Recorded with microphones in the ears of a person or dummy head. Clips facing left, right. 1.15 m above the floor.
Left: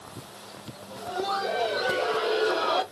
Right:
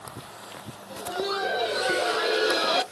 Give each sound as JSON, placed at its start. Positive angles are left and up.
{"t": 0.9, "sound": "laughter", "side_deg": -20, "distance_m": 1.4}